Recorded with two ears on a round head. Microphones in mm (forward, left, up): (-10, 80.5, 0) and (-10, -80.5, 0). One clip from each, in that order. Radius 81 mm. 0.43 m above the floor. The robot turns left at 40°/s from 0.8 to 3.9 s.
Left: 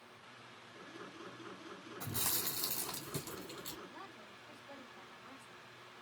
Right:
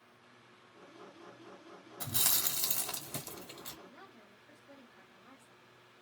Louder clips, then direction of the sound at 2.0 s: Right 6 dB; 65° right (ahead or behind).